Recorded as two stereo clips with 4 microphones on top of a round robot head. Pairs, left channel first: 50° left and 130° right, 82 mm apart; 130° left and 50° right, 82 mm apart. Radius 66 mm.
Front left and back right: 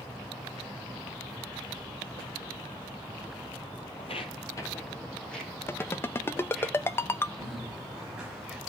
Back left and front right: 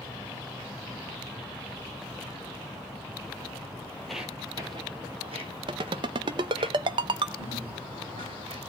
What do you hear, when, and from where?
4.0 s footsteps: 50° left, 1.4 m; by 6.7 s 40° right, 4 m
5.7 s a ringtone: 15° right, 0.7 m
7.4 s a bird: 45° right, 7.5 m